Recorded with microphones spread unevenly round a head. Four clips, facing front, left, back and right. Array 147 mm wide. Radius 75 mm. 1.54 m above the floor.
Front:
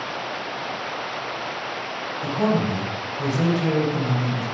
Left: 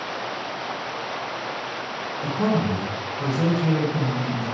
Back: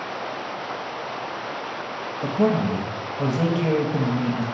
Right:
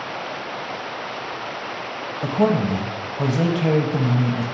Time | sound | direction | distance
2.2 | a man speaking | 110° right | 1.0 m